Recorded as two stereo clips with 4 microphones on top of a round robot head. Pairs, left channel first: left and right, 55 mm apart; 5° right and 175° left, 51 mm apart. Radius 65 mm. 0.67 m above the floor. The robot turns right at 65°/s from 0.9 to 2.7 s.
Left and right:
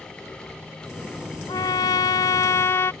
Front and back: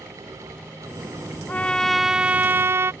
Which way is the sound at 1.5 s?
50° left.